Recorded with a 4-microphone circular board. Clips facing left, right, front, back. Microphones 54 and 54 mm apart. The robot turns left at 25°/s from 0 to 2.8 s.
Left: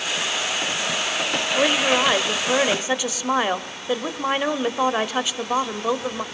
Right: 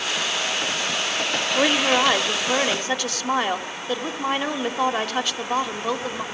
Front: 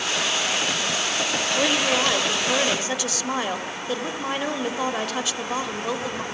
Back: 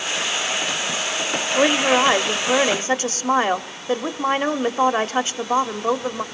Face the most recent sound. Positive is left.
turn(degrees=160)